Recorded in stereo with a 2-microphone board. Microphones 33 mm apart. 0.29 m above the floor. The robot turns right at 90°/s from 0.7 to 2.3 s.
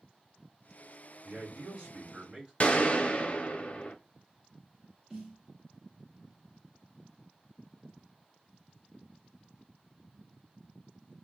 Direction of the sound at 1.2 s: 130° right.